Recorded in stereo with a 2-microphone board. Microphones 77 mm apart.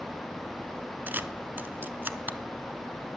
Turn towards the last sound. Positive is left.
turn(degrees=-25)  # may be behind; listen again after turning